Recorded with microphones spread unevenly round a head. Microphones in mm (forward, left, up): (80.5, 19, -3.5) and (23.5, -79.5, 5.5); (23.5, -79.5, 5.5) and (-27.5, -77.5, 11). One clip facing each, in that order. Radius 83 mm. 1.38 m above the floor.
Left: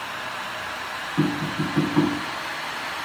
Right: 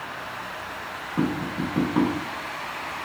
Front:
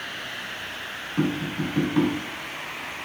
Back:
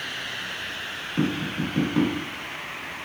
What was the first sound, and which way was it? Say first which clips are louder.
Tapping: left 2 dB, front 1 dB; 135° right.